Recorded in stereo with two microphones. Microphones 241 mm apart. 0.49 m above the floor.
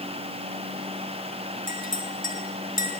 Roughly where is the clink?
Left.